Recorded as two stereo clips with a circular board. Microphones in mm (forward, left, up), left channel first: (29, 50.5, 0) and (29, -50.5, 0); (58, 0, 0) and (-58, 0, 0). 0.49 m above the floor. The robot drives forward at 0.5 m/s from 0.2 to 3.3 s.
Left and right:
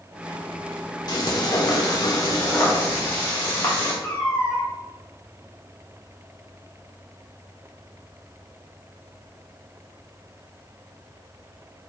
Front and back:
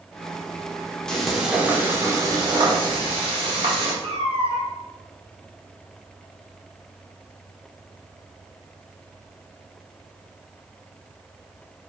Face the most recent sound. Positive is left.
turn(degrees=155)